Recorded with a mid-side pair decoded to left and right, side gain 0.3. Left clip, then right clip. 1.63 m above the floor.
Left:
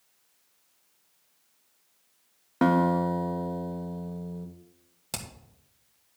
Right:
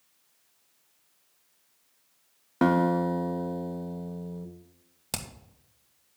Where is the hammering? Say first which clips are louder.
Right 2 dB; 35° right, 2.0 m.